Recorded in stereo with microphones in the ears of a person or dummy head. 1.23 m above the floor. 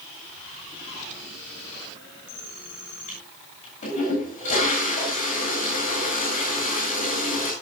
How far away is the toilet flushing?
About 8.5 m.